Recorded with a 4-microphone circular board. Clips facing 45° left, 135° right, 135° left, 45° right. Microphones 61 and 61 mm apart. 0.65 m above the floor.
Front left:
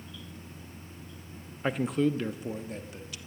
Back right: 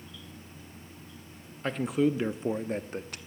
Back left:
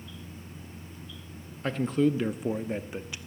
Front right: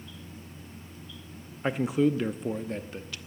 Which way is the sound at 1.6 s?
15° right.